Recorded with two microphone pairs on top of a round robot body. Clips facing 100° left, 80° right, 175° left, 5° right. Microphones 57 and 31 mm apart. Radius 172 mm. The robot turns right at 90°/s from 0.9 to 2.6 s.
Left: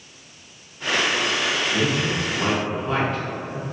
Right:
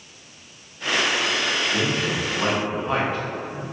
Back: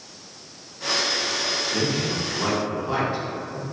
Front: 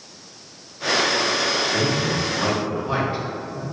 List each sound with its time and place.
1.7 s a man speaking: 95° right, 1.2 m; by 3.6 s 15° right, 1.2 m